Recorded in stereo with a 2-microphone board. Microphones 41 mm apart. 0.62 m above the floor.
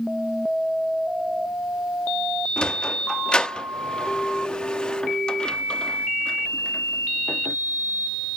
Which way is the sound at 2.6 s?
20° left (ahead or behind).